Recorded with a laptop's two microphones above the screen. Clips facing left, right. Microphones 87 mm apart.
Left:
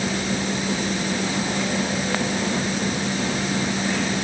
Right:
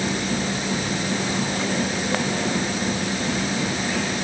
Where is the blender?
I don't hear a blender.